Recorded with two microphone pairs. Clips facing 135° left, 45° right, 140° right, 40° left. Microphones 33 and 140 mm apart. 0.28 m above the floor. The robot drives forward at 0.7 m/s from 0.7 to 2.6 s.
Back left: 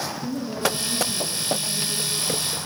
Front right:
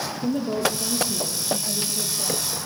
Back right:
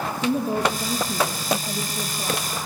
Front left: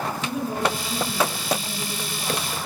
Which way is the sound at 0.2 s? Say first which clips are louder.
Front right 3 dB, back right 5 dB; 95° right.